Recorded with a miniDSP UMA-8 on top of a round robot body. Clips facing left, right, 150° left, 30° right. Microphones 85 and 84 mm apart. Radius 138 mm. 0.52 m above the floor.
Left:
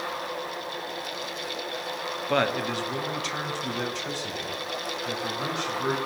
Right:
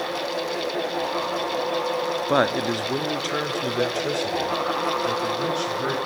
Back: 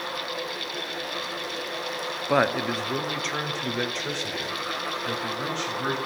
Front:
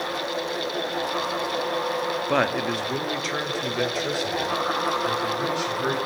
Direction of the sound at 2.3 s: 130° right.